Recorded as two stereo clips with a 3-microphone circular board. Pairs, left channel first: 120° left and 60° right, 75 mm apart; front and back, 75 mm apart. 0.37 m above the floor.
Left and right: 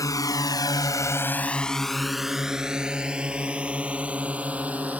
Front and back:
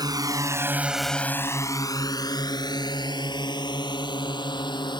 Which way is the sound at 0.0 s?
155° left.